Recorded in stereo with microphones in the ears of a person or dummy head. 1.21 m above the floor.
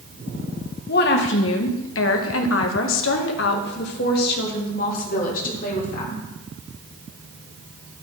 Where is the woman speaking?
55° left (ahead or behind), 1.4 m; by 6.2 s 45° left (ahead or behind), 3 m.